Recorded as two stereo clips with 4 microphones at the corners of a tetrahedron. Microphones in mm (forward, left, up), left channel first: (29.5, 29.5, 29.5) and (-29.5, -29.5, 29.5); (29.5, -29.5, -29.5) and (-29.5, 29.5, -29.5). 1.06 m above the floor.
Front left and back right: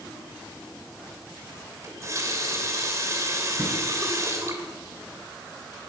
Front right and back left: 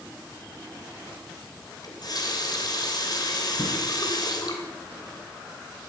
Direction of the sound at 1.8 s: 80° right.